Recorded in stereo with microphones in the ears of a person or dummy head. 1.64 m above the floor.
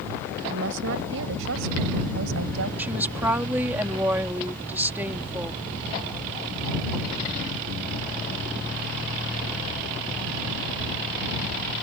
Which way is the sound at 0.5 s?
65° right (ahead or behind).